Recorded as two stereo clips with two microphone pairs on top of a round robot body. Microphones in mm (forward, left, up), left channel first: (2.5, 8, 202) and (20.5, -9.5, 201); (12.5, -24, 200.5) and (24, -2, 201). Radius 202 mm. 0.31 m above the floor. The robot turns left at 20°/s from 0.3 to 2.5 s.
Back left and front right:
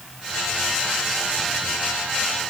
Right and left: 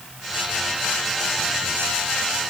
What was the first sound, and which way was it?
Only background noise.